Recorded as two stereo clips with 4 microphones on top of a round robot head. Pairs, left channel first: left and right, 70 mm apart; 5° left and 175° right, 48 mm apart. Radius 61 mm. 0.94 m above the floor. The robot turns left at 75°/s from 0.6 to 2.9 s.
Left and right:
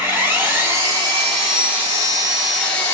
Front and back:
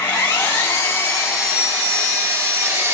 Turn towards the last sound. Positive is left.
turn(degrees=155)